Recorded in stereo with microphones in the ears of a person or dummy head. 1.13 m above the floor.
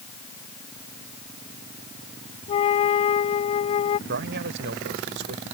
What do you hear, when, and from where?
2.5 s a flute: 25° left (ahead or behind)
4.1 s a man speaking: 60° right (ahead or behind)